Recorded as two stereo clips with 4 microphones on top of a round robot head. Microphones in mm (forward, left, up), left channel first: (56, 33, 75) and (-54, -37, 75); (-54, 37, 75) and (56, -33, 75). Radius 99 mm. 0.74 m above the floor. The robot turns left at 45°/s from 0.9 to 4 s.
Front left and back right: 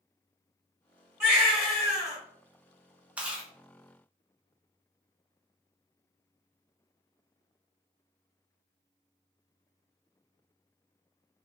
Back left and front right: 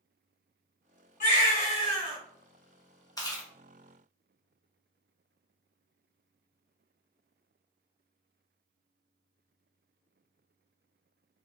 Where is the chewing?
145° left, 1.0 m; by 3.5 s 130° left, 1.0 m.